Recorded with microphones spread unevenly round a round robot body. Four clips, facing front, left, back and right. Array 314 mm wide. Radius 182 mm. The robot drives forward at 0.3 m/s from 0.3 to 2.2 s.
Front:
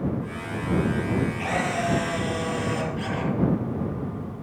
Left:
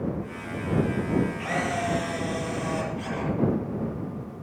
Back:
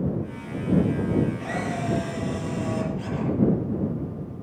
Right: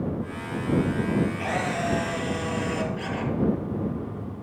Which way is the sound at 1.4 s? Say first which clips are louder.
Right 1 dB, front 3 dB; 50° right.